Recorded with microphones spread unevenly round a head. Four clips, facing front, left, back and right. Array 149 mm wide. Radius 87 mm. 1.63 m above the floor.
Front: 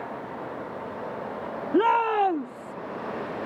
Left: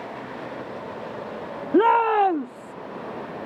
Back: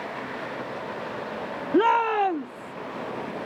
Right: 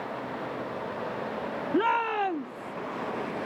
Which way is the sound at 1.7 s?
95° left.